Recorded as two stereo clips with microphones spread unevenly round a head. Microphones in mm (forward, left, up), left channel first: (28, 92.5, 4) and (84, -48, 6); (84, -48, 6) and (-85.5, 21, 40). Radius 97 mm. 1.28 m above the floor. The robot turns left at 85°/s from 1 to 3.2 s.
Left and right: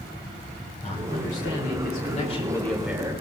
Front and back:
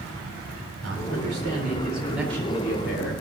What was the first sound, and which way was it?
A man speaking, 175° left.